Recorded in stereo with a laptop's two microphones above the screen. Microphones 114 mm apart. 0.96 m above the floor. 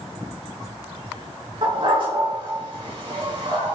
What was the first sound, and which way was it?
A dog barking, 50° right (ahead or behind).